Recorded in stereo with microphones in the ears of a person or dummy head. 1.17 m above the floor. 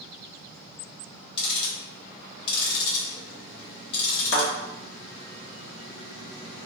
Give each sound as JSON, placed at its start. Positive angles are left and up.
{"t": 1.4, "sound": "ticking", "side_deg": 35, "distance_m": 0.9}
{"t": 4.3, "sound": "a thud", "side_deg": 60, "distance_m": 1.0}